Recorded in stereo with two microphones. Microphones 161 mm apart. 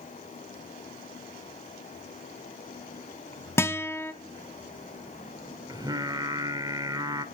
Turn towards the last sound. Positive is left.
turn(degrees=-25)  # may be behind; listen again after turning